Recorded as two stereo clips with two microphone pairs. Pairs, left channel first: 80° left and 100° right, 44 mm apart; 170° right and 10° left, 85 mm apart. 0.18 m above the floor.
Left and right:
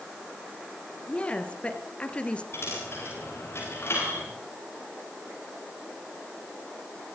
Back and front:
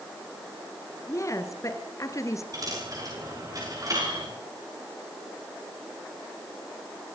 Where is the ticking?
I don't hear ticking.